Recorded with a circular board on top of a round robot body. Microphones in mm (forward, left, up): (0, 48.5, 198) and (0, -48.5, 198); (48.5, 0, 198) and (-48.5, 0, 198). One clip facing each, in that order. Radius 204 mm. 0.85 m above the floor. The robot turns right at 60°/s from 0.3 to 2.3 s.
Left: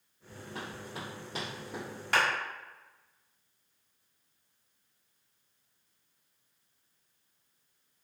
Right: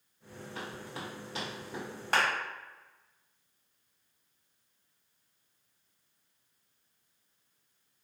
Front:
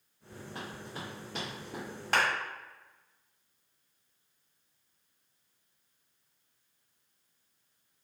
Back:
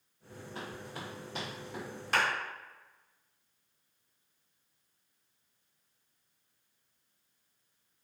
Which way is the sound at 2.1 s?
35° right.